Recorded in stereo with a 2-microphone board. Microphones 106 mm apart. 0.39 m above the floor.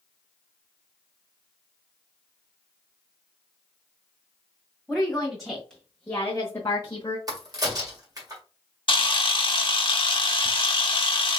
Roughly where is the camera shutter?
Left.